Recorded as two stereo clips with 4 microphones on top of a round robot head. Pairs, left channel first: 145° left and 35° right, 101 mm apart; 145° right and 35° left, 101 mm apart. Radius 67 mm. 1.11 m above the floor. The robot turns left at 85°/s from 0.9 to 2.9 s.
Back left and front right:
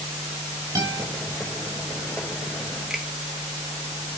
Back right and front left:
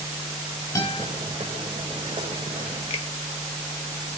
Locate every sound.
0.8 s a guitar: 90° right, 7 m; by 1.1 s 105° right, 7 m
2.9 s a finger snap: 120° right, 1.1 m